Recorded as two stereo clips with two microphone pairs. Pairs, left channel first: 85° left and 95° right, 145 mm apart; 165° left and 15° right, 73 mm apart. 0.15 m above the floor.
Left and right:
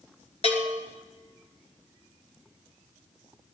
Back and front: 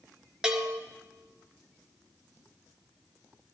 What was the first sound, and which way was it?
A bell, 60° left.